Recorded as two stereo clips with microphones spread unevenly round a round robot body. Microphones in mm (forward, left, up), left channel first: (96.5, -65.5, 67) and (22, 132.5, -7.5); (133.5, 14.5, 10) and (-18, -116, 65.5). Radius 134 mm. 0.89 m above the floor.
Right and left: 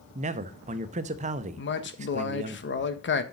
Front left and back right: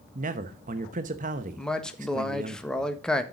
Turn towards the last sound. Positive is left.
turn(degrees=-30)